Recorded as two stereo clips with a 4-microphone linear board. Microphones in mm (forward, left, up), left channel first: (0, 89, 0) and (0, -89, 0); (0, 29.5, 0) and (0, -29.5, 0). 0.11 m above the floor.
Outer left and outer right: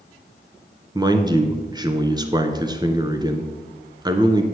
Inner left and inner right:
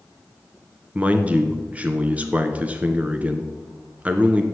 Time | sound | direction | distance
0.9 | a man speaking | 25° right (ahead or behind) | 1.1 m